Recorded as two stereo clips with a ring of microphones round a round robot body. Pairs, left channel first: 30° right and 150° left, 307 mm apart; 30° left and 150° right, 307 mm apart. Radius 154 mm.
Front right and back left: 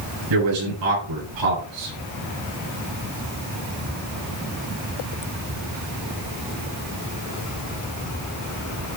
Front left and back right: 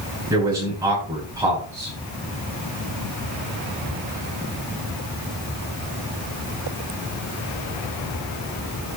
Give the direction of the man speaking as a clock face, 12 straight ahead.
8 o'clock.